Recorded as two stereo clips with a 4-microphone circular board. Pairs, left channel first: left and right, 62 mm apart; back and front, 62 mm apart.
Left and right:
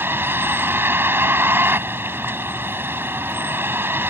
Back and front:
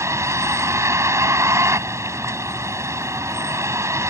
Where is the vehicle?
40° right.